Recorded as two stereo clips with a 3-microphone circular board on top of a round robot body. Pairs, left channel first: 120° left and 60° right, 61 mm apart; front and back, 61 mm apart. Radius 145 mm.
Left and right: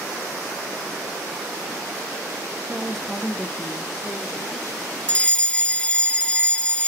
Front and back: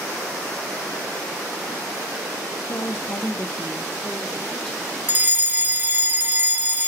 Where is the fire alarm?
165° left, 2 m.